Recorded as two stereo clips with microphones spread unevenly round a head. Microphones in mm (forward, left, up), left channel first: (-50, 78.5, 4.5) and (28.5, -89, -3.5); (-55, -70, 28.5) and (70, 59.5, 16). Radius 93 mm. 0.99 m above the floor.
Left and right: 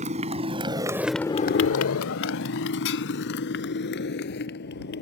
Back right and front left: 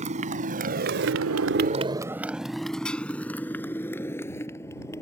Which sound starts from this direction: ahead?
A motorcycle, at 0.0 s.